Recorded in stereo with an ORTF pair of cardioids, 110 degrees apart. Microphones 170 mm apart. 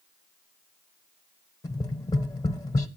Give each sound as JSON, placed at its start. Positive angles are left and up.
{"t": 1.6, "sound": "tapping", "azimuth_deg": 20, "distance_m": 0.8}